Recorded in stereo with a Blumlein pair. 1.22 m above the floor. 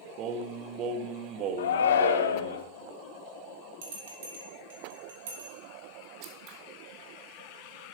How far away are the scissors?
About 1.6 m.